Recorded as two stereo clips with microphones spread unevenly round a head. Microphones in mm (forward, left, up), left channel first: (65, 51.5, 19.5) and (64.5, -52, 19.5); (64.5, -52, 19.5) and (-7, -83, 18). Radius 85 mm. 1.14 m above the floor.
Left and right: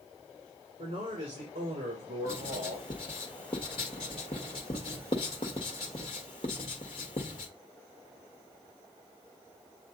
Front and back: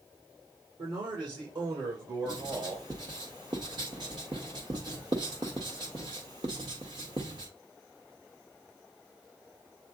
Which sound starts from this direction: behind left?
Writing, at 2.2 s.